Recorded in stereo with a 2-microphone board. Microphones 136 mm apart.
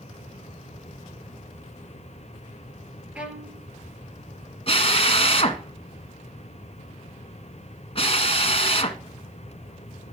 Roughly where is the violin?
Centre.